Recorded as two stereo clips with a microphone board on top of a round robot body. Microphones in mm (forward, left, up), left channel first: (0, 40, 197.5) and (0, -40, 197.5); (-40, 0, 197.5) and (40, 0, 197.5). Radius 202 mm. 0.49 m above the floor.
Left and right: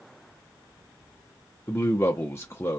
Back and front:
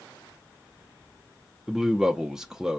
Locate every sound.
1.7 s a man speaking: 80° left, 0.9 m